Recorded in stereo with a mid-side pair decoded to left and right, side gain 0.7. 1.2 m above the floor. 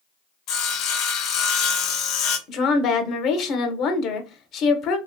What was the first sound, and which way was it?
Sawing, 60° left.